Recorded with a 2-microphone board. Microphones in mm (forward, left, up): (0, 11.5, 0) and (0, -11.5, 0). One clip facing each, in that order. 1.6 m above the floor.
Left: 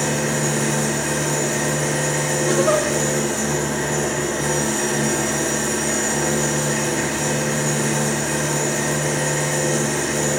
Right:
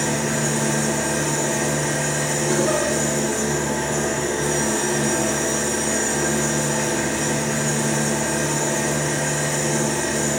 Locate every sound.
0.0 s an engine running: 45° left (ahead or behind), 1.9 m
2.5 s a giggle: 50° left (ahead or behind), 1.2 m